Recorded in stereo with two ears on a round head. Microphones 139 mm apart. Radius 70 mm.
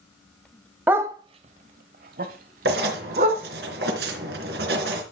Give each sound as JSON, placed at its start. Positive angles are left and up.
{"t": 0.9, "sound": "a dog barking", "side_deg": -10, "distance_m": 1.0}
{"t": 2.6, "sound": "writing", "side_deg": -75, "distance_m": 3.5}